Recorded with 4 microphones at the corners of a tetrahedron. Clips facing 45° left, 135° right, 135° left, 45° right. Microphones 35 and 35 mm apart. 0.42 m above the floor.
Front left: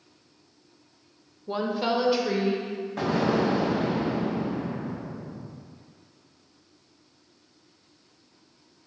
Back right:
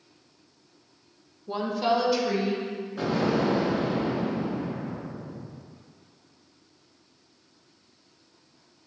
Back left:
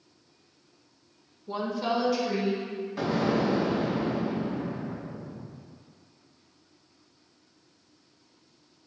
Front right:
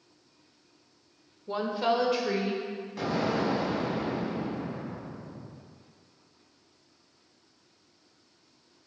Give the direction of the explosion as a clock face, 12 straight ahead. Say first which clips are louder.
Front left 1 dB, back left 2 dB; 10 o'clock.